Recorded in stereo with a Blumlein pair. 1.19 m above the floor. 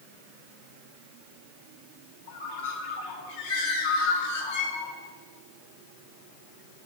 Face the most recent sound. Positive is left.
turn(degrees=55)